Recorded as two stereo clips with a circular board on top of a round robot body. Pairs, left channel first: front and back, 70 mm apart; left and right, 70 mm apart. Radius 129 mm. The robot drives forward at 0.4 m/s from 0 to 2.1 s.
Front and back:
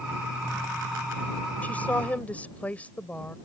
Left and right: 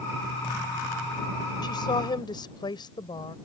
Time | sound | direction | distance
1.6 | a woman speaking | 70° left | ?